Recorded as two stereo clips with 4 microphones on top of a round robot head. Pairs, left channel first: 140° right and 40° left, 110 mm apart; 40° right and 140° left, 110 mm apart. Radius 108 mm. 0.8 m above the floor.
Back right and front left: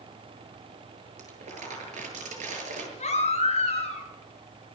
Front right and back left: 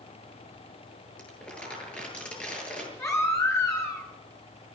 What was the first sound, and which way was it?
Crumpling, 40° left.